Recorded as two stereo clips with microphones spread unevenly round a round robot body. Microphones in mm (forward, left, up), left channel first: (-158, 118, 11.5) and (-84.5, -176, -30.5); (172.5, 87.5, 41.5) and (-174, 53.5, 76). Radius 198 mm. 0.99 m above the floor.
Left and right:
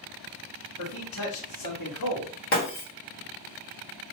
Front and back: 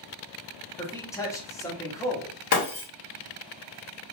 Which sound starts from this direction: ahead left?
Breaking glass, at 2.5 s.